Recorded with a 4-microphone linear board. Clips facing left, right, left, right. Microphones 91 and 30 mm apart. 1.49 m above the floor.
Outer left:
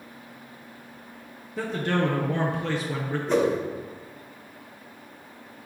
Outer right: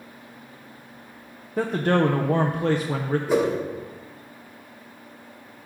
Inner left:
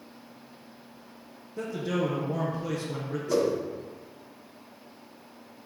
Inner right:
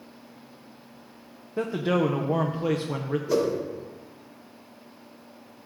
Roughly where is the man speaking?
Right.